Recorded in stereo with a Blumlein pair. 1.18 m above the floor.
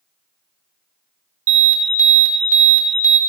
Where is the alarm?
50° right, 0.7 m.